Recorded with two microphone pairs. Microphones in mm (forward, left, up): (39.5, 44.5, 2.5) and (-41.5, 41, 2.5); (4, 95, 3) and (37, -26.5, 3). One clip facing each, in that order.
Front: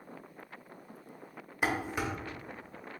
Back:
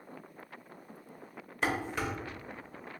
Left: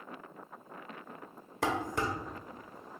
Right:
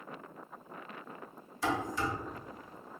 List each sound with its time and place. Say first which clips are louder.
1.6 s dishes clattering: even, left 1 dB; 80° left, 0.8 m